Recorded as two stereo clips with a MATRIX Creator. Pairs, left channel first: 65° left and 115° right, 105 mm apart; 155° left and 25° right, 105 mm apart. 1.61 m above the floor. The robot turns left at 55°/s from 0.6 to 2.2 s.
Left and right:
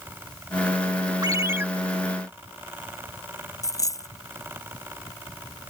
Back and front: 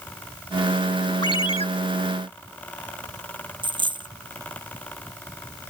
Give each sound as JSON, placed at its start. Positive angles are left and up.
{"t": 1.2, "sound": "a ringtone", "azimuth_deg": -160}
{"t": 3.6, "sound": "a dropped coin", "azimuth_deg": 10}